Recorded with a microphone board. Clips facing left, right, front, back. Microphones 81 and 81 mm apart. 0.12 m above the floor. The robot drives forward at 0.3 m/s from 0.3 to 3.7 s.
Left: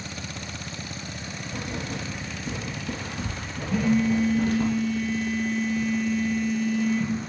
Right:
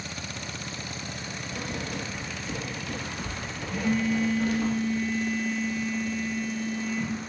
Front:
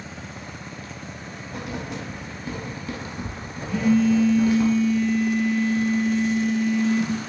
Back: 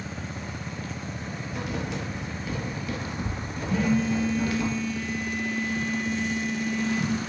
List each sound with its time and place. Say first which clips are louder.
1.5 s writing: left 2 dB, even; 35° left, 1.2 m; by 4.7 s 70° left, 0.8 m
3.7 s a phone buzzing: left 4 dB, front 5 dB; 135° right, 1.9 m